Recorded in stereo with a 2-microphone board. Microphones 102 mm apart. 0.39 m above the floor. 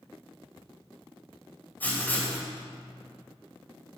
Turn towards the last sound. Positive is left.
turn(degrees=20)  # may be behind; listen again after turning